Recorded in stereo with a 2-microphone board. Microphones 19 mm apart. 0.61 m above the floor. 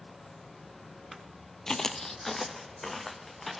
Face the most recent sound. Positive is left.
turn(degrees=5)  # may be behind; listen again after turning